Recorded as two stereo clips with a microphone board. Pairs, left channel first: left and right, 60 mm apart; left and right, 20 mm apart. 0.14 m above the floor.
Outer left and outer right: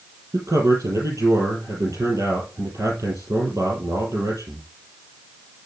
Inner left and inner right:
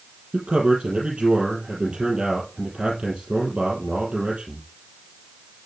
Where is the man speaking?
70° right (ahead or behind), 3.5 m.